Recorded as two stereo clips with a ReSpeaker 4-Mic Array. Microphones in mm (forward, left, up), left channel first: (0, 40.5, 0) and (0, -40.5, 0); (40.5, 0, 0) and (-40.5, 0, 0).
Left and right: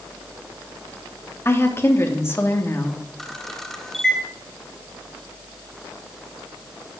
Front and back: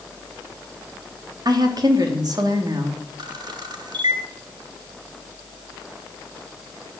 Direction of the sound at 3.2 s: 175° left.